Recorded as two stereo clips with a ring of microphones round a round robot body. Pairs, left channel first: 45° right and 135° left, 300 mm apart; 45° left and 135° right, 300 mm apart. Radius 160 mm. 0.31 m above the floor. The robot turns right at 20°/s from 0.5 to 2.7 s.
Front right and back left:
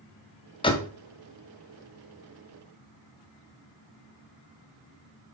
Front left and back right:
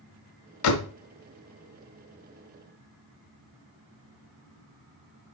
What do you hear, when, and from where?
0.6 s a door slam: 25° left, 1.2 m; by 0.9 s 35° left, 1.2 m